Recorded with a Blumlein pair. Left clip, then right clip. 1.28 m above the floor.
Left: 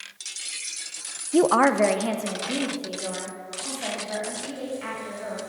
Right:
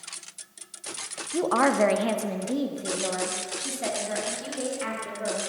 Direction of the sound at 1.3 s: 30° left.